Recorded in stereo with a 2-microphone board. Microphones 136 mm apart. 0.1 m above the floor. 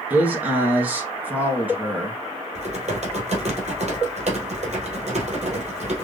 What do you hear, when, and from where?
0.1 s a man speaking: 10° right (ahead or behind), 1.4 m
2.5 s typing on a keyboard: 60° right (ahead or behind), 2.0 m